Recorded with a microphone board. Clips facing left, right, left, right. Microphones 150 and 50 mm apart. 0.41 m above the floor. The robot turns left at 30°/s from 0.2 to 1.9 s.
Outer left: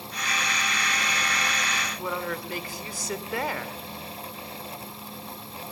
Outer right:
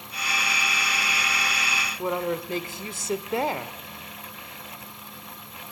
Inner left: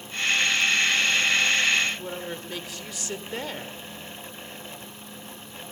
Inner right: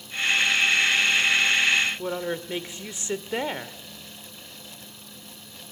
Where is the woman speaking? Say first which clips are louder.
Outer right 7 dB, inner right 5 dB; 25° right (ahead or behind), 1.1 m.